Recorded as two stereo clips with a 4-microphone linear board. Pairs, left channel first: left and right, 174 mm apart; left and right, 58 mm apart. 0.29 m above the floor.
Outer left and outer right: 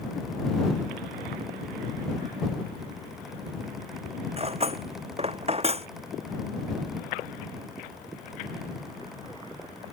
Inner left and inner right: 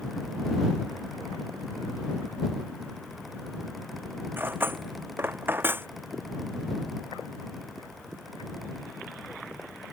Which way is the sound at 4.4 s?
35° right (ahead or behind).